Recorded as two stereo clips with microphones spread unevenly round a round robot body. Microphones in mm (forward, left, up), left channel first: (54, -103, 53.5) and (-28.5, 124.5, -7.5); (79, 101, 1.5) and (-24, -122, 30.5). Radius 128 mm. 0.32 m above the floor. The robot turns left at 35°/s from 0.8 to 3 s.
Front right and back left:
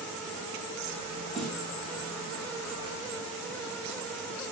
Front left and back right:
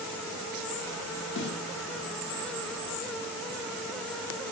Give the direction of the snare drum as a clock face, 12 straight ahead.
11 o'clock.